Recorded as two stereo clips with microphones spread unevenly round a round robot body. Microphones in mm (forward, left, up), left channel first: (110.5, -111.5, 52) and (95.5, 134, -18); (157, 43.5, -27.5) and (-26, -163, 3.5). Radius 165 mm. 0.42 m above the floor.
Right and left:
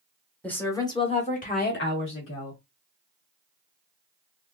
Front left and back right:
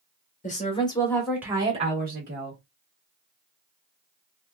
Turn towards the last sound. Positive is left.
turn(degrees=-110)